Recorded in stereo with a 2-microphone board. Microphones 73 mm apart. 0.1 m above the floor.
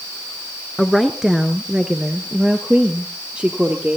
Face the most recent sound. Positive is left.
turn(degrees=-15)  # may be behind; listen again after turning